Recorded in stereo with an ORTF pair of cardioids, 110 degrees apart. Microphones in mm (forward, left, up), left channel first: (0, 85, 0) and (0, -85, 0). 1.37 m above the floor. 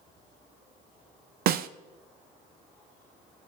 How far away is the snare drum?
About 0.6 m.